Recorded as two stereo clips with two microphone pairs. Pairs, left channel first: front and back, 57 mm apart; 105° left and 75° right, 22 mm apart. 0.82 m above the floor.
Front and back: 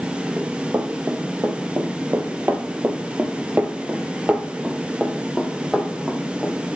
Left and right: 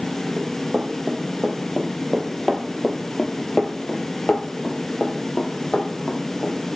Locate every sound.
0.4 s running footsteps: 125° right, 1.8 m; by 6.5 s 90° left, 1.9 m